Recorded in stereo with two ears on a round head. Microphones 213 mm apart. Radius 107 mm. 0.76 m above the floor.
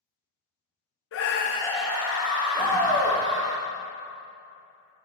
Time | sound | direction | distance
1.1 | a scream | 55° left (ahead or behind) | 0.7 m
2.5 | a shout | 10° left (ahead or behind) | 1.6 m